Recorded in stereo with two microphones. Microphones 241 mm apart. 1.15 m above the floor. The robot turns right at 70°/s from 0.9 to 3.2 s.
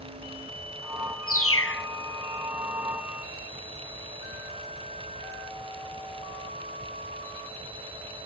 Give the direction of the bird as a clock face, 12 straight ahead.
9 o'clock.